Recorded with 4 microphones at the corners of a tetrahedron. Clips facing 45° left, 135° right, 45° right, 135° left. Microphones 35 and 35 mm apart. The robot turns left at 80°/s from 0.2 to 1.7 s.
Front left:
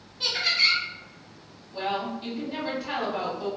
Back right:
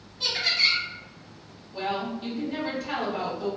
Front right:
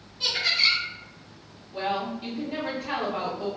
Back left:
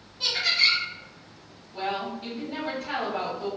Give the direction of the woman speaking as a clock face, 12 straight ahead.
1 o'clock.